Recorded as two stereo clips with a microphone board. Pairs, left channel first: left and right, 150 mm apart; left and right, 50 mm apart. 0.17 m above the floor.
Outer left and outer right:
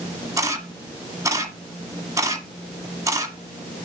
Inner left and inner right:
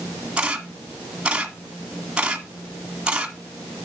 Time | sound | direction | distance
0.4 | a camera shutter | 20° right (ahead or behind) | 1.5 m